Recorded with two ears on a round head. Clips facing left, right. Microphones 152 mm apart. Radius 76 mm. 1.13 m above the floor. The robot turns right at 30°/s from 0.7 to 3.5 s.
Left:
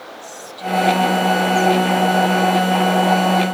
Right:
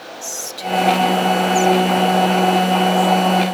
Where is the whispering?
55° right (ahead or behind); by 3.4 s 30° right (ahead or behind).